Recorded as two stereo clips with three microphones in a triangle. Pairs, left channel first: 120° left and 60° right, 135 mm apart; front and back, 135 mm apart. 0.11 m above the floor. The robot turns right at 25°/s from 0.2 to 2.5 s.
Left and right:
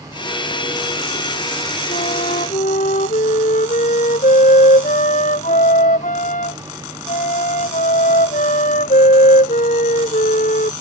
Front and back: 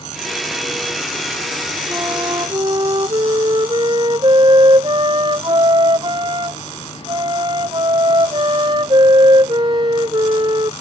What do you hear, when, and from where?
1.9 s a flute: 110° left; by 10.7 s 125° left